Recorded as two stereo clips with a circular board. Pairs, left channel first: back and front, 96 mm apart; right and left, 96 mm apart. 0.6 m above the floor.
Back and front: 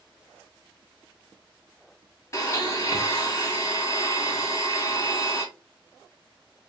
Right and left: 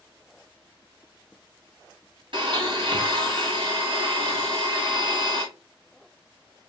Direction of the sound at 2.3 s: 120° left.